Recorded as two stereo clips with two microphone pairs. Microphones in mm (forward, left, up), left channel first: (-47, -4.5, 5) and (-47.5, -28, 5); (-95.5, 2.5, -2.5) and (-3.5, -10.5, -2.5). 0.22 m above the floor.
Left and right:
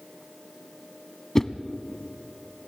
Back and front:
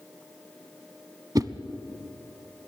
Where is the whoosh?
25° left, 0.9 m.